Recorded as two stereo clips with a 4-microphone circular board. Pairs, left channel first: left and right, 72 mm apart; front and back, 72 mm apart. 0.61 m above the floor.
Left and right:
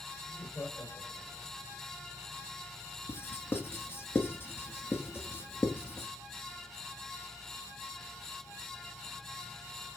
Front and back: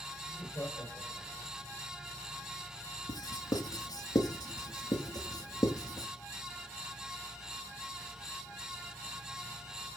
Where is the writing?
30° left, 1.8 m.